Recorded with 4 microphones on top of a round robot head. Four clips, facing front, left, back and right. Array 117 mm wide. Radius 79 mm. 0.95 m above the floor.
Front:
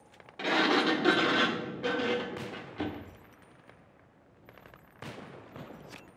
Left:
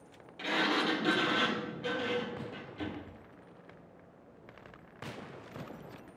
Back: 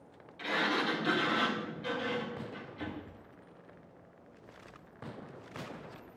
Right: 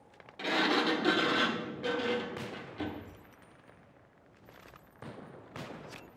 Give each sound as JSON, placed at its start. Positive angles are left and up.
{"t": 0.4, "sound": "a sliding door", "azimuth_deg": -10, "distance_m": 1.0}